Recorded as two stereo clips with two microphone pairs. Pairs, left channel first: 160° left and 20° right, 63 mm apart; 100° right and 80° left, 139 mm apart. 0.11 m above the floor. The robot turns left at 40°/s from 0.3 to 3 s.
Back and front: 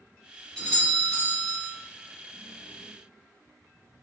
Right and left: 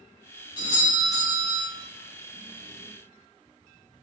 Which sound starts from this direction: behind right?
A doorbell, at 0.6 s.